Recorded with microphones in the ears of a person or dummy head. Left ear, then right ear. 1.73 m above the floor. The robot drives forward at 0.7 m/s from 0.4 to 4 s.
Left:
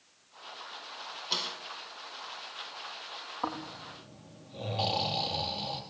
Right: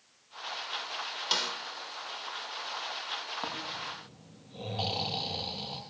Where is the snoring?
5° left (ahead or behind), 7 m.